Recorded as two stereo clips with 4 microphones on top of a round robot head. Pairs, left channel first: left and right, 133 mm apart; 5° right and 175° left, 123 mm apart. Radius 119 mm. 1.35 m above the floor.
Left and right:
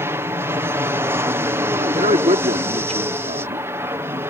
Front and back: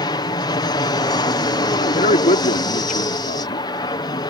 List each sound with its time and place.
0.0 s an aircraft: 30° right
1.8 s a man speaking: 35° right